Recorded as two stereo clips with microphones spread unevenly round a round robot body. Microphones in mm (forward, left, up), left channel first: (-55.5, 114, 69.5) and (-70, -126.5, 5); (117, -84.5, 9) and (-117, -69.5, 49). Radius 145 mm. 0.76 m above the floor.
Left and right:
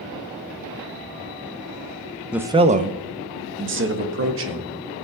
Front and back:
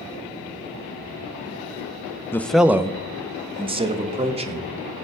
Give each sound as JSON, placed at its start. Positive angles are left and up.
{"t": 2.3, "sound": "a man speaking", "azimuth_deg": -45, "distance_m": 0.6}